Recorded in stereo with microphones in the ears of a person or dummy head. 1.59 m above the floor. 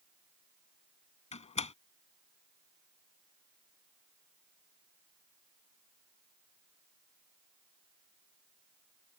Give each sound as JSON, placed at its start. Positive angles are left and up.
{"t": 1.3, "sound": "a door slam", "side_deg": 40}